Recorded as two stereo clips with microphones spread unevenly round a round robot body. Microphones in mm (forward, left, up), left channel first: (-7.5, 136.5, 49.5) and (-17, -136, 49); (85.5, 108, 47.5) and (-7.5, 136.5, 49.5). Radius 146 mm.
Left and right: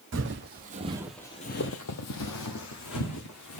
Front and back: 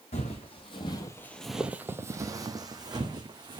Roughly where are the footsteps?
Ahead right.